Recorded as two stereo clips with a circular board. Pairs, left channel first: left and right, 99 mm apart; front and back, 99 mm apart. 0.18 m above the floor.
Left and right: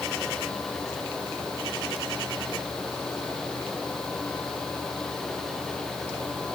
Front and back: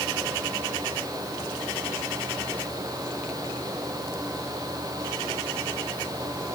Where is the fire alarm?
No fire alarm in this recording.